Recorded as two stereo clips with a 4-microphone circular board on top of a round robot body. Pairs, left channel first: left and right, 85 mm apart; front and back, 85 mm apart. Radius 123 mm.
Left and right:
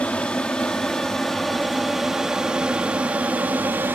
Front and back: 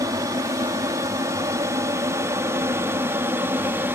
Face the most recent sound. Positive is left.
turn(degrees=-140)